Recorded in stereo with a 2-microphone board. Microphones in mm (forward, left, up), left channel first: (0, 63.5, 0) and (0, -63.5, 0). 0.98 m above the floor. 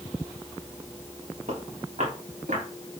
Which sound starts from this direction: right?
Footsteps, at 1.5 s.